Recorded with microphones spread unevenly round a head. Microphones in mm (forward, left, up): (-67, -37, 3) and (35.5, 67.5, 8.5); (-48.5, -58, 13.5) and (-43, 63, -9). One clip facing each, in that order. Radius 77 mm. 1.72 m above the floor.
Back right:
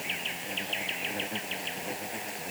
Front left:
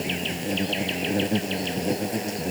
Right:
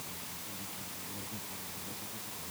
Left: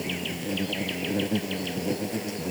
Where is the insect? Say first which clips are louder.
Front left 11 dB, left 17 dB; 85° left.